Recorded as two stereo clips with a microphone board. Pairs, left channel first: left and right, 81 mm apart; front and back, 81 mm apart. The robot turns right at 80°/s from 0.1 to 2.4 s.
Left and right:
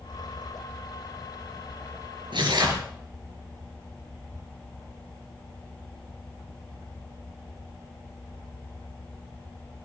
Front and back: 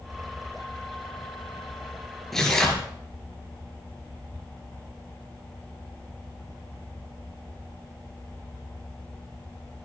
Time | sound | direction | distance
2.3 | tearing paper | 85° right | 3.5 m